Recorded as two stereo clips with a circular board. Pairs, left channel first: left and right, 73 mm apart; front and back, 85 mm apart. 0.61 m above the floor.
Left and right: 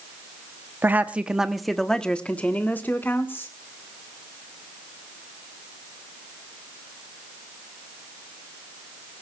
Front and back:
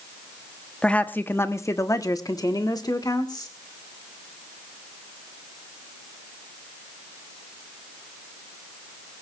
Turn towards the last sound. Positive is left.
turn(degrees=35)